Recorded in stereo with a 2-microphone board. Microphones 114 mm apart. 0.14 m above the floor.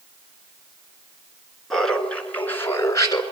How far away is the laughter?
About 2 m.